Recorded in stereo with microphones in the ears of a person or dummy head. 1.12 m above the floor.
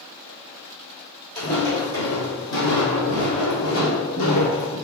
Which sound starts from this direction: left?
Footsteps, at 1.4 s.